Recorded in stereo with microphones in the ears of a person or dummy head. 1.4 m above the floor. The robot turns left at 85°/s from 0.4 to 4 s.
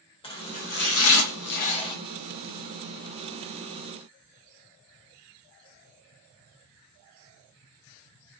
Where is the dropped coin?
No dropped coin in this recording.